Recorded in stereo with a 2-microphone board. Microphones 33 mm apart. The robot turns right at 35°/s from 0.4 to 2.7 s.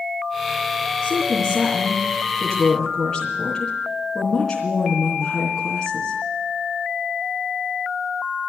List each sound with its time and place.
1.0 s a woman speaking: 40° right, 3.5 m; by 6.2 s 20° left, 3.5 m